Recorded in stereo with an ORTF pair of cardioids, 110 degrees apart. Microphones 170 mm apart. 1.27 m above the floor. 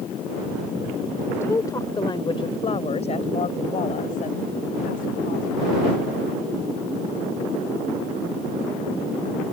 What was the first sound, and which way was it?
A woman speaking, 15° left.